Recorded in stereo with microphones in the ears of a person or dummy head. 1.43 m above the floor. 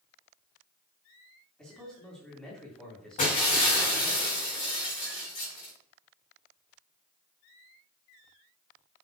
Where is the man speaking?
5° left (ahead or behind), 3 m.